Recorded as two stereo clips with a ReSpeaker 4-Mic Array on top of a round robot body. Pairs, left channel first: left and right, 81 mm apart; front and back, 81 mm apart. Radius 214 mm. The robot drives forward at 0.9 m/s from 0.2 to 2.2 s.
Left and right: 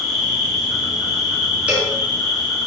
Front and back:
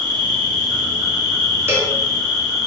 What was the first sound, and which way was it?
An insect, 175° right.